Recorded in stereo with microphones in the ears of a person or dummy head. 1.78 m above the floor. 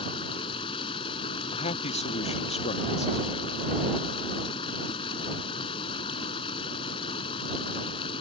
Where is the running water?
30° left (ahead or behind).